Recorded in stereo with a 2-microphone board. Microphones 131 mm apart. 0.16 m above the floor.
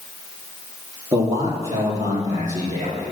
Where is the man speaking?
25° right (ahead or behind), 4 m; by 3.1 s 30° right (ahead or behind), 5 m.